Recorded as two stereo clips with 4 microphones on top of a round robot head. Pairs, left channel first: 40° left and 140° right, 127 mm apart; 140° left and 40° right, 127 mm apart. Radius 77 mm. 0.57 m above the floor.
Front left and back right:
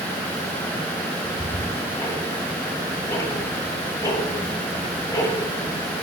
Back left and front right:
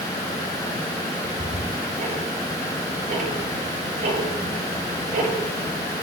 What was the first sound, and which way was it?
Ticking, 20° right.